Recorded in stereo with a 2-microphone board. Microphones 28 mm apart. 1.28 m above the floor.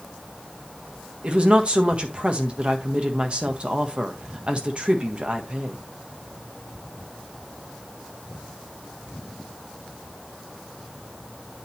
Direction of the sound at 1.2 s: 40° right (ahead or behind).